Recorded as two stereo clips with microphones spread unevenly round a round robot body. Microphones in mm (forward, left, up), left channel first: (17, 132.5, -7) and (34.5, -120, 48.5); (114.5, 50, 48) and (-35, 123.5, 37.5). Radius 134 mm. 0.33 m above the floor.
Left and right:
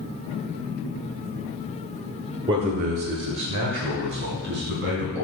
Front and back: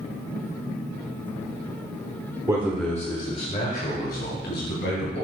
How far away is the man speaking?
About 1.3 m.